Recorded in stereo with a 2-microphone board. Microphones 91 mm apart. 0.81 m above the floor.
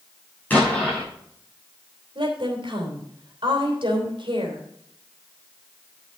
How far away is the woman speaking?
About 3 m.